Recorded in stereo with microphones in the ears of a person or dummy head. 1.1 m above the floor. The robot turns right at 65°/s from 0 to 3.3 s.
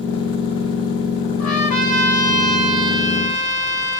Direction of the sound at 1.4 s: 115° left.